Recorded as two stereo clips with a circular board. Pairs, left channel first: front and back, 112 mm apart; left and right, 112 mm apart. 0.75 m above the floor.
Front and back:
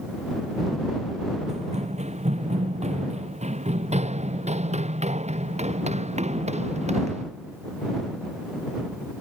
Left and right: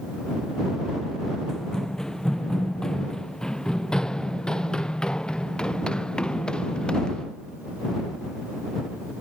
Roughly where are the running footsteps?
Behind.